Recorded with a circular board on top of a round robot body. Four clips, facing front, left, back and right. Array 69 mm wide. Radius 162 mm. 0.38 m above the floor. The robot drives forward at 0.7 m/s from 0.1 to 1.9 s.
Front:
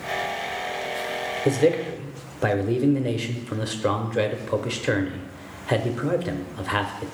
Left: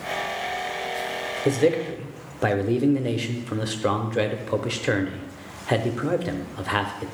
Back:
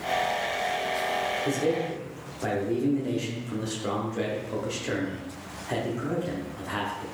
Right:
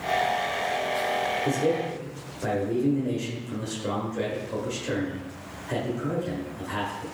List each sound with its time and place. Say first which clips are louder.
1.4 s a man speaking: left 9 dB, front 10 dB; 45° left, 1.5 m; by 7.1 s 55° left, 1.3 m